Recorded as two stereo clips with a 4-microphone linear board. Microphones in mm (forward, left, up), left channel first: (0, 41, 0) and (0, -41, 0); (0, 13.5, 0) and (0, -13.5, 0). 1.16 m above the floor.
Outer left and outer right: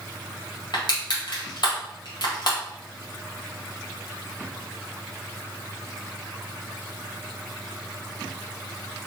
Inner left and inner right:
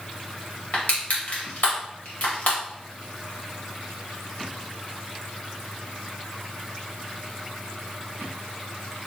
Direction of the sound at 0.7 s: 60° left (ahead or behind).